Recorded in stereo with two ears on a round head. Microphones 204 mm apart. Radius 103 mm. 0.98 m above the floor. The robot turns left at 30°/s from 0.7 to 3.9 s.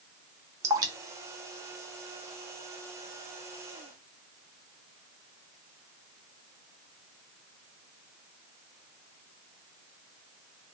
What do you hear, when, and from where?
0.6 s dripping: 15° right (ahead or behind), 0.7 m; by 2.8 s 50° right (ahead or behind), 0.7 m